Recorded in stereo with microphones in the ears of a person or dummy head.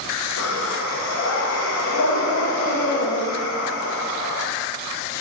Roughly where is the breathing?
Left.